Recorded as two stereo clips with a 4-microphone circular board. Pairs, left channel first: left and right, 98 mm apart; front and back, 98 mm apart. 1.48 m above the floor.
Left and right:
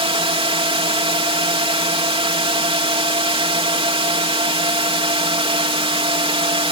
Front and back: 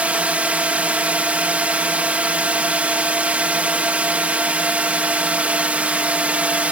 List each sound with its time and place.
0.0 s a drone: 105° right